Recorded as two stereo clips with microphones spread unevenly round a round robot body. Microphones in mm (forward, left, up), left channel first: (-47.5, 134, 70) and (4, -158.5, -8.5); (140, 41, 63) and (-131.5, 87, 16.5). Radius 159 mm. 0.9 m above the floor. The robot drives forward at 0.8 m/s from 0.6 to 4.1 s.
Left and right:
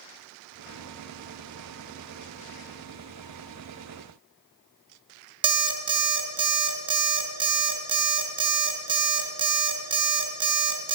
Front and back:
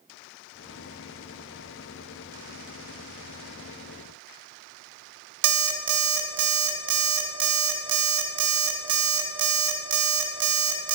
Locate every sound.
5.4 s an alarm clock: 165° right, 0.7 m